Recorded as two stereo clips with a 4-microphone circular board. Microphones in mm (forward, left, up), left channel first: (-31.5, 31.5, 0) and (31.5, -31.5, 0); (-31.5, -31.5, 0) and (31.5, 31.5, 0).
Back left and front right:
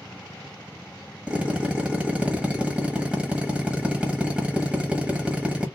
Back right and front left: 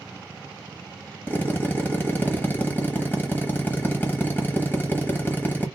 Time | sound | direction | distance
1.3 | a drill | 105° right | 0.9 m